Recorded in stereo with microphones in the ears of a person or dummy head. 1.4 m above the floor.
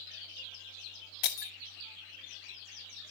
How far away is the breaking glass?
About 1.0 m.